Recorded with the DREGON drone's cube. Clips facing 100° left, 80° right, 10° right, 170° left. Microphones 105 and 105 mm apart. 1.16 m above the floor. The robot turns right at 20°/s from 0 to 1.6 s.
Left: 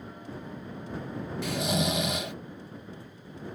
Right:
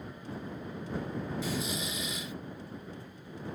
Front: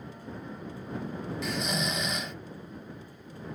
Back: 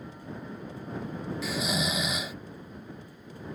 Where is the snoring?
80° left; by 2.4 s 85° left.